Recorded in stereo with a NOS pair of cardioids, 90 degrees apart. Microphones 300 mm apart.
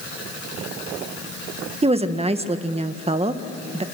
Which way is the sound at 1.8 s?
20° right.